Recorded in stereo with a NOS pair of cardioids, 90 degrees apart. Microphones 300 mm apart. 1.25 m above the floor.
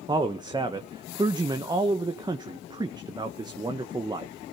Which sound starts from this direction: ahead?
A man speaking, at 0.1 s.